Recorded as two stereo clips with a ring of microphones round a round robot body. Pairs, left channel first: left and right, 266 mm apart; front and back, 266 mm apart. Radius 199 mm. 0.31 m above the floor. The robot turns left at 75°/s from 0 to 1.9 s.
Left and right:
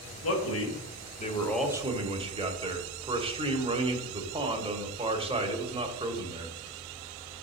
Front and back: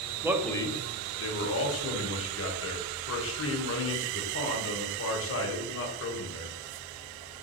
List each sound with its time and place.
0.2 s a man speaking: 105° left, 1.5 m; by 6.6 s 20° right, 1.5 m